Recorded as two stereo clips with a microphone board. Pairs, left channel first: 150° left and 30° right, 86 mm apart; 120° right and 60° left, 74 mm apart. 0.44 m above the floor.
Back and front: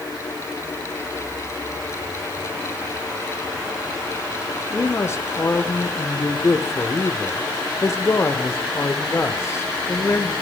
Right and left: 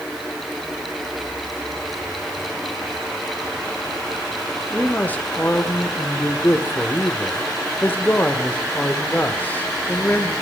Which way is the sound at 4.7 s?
175° right.